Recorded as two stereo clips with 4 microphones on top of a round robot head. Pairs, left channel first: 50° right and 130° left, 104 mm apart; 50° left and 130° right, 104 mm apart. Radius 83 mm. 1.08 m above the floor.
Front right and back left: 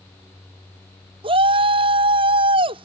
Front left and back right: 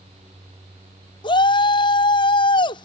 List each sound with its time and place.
1.2 s a shout: 95° left